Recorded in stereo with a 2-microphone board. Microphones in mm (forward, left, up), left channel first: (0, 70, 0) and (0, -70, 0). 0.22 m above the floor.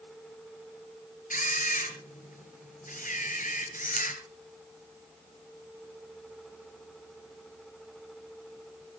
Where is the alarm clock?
I don't hear an alarm clock.